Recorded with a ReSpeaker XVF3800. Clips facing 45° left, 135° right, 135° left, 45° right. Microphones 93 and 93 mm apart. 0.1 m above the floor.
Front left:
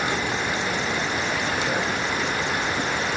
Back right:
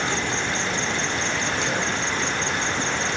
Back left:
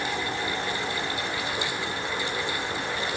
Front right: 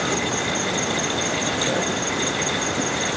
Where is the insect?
35° right.